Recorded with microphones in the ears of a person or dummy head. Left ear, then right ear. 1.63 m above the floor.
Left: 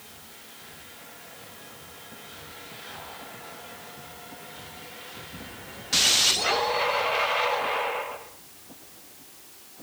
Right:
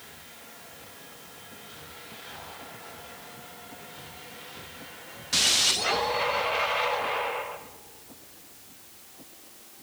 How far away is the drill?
No drill in this recording.